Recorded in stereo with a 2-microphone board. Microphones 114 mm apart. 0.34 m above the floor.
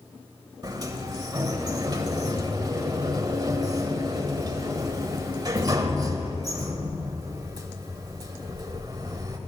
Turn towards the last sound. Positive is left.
turn(degrees=-35)  # may be behind; listen again after turning